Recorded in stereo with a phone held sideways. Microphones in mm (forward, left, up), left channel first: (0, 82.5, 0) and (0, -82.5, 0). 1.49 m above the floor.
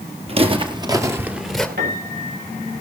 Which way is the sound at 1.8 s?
85° right.